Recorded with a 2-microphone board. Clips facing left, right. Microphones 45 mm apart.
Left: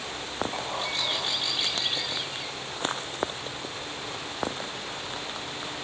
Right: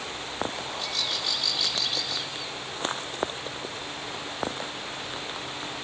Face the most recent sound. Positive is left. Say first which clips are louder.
# left 2 dB
turn(degrees=25)  # may be behind; listen again after turning